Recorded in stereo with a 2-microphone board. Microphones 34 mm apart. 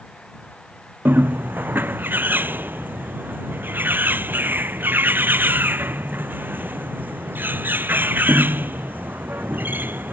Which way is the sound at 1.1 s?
75° right (ahead or behind).